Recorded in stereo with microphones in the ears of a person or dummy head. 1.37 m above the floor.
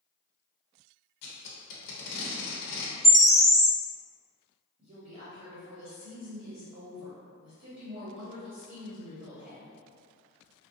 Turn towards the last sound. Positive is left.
turn(degrees=-20)  # may be behind; listen again after turning